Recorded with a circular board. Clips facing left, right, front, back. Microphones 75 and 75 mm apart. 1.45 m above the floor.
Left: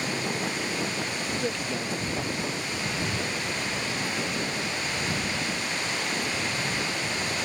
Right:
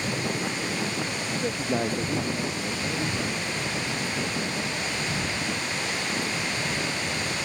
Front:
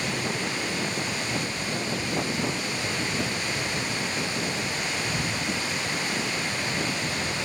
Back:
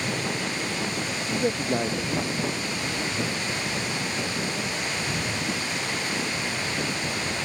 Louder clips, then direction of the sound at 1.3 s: Right 5 dB, back 5 dB; 160° left.